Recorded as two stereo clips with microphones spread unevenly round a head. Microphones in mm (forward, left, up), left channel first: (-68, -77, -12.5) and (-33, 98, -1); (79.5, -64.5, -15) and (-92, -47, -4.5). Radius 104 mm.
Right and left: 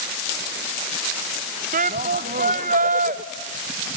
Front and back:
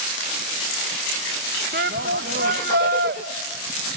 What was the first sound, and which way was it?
A shout, 125° left.